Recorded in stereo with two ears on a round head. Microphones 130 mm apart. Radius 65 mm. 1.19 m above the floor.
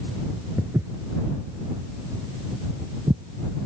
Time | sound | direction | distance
0.6 | footsteps | 15° right (ahead or behind) | ?